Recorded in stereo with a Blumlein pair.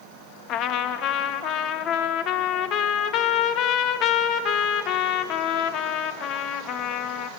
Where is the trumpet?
35° left, 1.1 m.